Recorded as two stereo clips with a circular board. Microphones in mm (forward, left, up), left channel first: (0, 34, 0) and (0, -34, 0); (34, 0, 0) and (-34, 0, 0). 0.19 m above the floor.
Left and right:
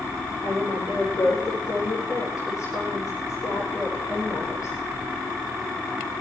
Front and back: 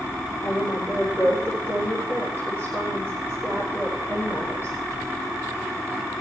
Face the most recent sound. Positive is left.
turn(degrees=55)